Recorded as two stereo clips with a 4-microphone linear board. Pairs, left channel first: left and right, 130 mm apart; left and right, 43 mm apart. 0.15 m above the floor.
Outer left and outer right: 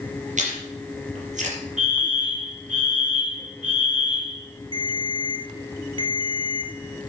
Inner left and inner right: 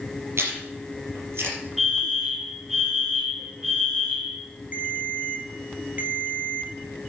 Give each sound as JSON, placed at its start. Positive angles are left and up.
{"t": 0.4, "sound": "chewing", "side_deg": -65, "distance_m": 5.0}
{"t": 1.8, "sound": "a fire alarm", "side_deg": -10, "distance_m": 4.0}
{"t": 4.7, "sound": "a ringtone", "side_deg": -40, "distance_m": 2.0}